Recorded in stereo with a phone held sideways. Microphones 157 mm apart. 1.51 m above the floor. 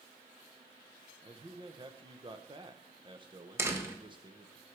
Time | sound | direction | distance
1.2 | a man speaking | 30° right (ahead or behind) | 0.9 m
3.6 | a door slam | 15° right (ahead or behind) | 1.2 m